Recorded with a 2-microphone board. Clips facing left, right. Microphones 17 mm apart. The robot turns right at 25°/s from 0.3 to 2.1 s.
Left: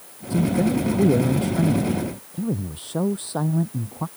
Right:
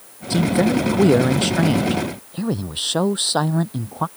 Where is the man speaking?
115° right; by 4.1 s 70° right.